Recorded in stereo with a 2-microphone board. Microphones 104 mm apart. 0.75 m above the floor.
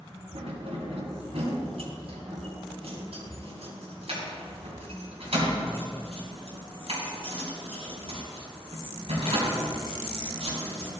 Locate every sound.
0.3 s keys jangling: 70° right (ahead or behind), 3.5 m